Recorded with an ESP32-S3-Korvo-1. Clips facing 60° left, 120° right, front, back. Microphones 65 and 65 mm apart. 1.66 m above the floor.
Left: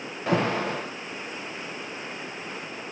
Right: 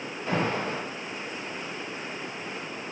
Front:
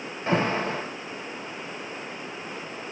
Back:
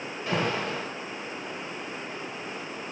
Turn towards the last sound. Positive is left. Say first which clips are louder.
# left 3 dB, front 4 dB
turn(degrees=55)